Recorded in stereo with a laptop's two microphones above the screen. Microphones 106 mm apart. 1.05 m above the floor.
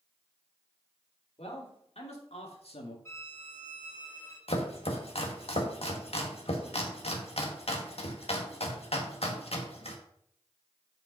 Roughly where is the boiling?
I don't hear boiling.